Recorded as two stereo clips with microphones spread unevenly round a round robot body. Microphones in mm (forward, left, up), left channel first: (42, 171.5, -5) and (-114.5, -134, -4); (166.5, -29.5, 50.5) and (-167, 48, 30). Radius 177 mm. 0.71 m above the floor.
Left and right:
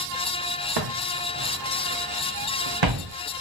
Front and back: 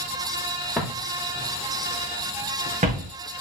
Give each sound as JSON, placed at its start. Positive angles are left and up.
{"t": 0.8, "sound": "footsteps", "azimuth_deg": -105, "distance_m": 3.5}